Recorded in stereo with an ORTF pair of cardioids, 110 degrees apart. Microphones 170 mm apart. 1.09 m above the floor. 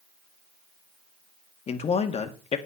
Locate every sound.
1.7 s a man speaking: 40° left, 1.8 m